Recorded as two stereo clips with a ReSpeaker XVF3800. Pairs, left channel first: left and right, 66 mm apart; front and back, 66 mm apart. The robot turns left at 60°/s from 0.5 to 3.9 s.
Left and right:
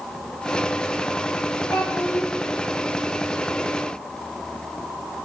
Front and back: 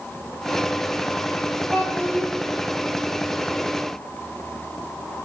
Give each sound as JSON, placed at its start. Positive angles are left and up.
{"t": 1.7, "sound": "a child speaking", "azimuth_deg": 75, "distance_m": 2.0}